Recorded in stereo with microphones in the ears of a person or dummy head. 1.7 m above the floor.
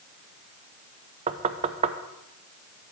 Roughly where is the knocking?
Right.